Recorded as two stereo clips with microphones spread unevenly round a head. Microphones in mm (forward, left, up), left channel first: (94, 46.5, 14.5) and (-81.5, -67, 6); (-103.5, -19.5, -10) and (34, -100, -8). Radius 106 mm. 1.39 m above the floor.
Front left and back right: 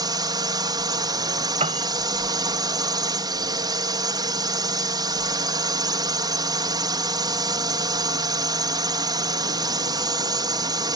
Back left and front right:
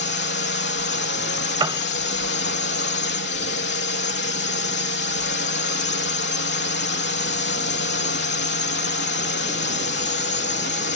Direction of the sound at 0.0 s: 140° left.